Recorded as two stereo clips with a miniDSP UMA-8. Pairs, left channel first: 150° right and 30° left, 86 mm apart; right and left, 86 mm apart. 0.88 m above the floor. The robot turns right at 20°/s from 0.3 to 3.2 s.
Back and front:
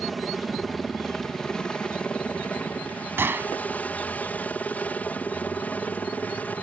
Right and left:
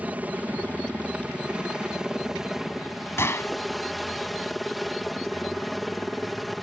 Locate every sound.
0.0 s a helicopter: 120° left; by 6.6 s straight behind
3.2 s a gunshot: 30° right